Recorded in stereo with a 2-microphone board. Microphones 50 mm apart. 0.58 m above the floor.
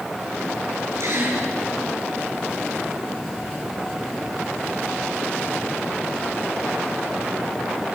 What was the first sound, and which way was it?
A gasp, 75° right (ahead or behind).